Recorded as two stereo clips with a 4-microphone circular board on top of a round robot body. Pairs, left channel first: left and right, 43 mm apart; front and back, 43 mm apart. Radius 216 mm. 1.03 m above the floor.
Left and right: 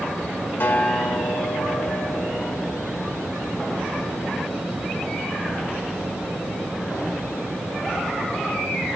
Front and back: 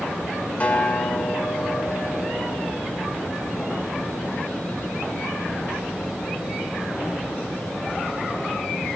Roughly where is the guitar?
Ahead left.